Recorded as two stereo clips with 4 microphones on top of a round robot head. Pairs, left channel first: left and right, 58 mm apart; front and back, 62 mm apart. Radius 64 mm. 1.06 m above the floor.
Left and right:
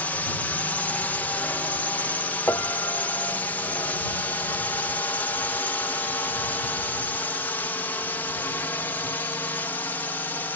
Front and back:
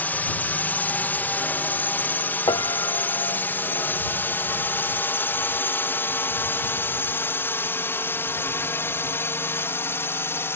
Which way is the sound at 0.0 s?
45° left.